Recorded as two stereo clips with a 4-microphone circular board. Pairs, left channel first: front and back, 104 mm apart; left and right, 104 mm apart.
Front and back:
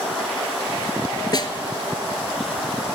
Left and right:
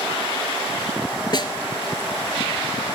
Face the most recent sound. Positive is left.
turn(degrees=45)